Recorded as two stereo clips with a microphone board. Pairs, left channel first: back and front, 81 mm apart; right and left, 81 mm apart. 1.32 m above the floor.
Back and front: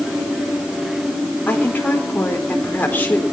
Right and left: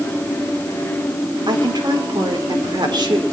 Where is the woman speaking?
115° left, 4.5 m.